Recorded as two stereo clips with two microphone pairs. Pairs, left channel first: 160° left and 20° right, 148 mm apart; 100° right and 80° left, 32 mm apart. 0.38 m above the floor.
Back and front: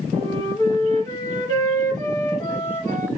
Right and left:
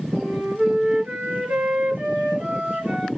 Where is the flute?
95° left, 2 m.